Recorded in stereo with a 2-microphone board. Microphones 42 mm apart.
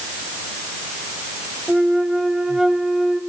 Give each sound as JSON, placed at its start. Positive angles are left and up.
{"t": 1.7, "sound": "a flute", "side_deg": -5, "distance_m": 2.5}